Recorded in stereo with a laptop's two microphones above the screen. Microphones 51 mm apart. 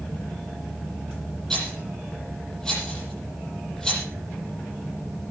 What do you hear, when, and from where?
1.5 s a rattle: 10° left (ahead or behind), 8 m